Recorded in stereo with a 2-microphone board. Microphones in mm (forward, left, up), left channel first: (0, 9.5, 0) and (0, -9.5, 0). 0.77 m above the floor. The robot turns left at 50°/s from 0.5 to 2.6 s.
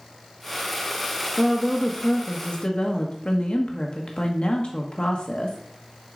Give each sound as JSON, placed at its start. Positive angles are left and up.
{"t": 1.4, "sound": "a woman speaking", "azimuth_deg": 160, "distance_m": 0.9}